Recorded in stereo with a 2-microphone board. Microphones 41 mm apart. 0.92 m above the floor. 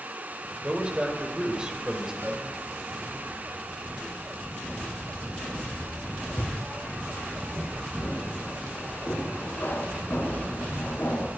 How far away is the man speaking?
About 4 m.